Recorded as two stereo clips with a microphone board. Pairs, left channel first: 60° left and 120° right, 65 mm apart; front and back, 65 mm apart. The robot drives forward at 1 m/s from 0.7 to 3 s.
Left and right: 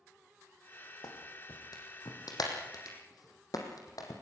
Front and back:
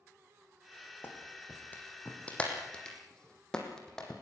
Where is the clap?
55° left, 5 m; by 4.1 s 80° left, 4.5 m.